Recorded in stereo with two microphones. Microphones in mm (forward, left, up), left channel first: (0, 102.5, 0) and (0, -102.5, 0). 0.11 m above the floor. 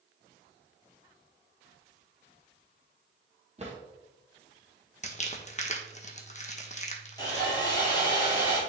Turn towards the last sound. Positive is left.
turn(degrees=20)  # may be behind; listen again after turning